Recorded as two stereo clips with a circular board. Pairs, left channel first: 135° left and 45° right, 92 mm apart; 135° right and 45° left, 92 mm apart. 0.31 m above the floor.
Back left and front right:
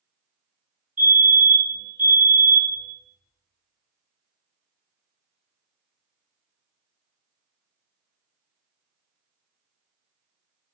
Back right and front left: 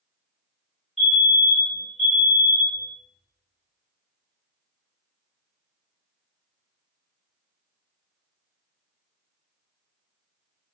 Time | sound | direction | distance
1.0 | a fire alarm | 55° right | 1.8 m